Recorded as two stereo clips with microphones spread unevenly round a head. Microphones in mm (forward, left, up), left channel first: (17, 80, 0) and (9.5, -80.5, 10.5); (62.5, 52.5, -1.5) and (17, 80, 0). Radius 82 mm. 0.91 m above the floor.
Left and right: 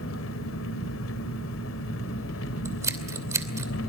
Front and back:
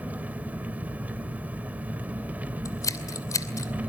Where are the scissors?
20° right, 2.5 m.